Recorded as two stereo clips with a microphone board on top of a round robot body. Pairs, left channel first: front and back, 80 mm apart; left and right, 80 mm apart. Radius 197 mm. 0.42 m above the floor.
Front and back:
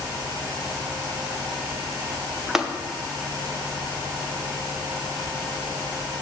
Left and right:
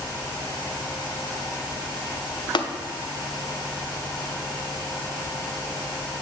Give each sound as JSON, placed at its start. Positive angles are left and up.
{"t": 2.5, "sound": "tapping", "azimuth_deg": 95, "distance_m": 0.9}